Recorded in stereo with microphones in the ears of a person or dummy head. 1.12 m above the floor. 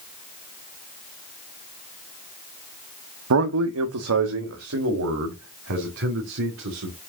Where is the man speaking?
85° right, 1.0 m; by 7.0 s 70° right (ahead or behind), 3.5 m.